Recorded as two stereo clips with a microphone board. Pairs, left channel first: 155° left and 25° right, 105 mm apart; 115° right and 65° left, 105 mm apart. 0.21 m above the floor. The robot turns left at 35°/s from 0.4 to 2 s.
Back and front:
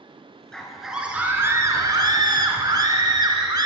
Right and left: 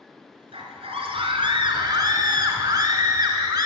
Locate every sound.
0.5 s a scream: 75° left, 3 m; by 3.7 s 25° left, 3 m